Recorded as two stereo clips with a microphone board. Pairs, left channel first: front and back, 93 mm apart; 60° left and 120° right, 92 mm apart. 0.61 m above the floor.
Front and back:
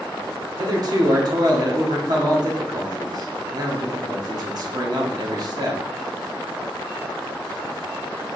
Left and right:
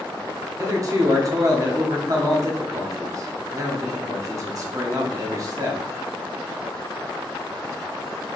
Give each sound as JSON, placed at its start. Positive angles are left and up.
{"t": 0.6, "sound": "a man speaking", "azimuth_deg": -155, "distance_m": 1.0}